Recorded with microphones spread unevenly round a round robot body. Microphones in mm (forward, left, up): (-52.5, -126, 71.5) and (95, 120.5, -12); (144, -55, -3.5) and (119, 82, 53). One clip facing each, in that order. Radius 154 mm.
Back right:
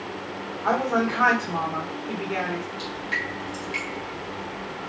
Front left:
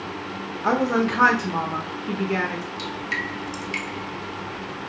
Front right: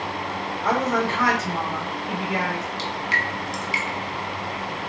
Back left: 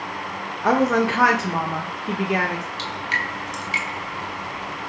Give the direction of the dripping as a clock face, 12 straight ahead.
11 o'clock.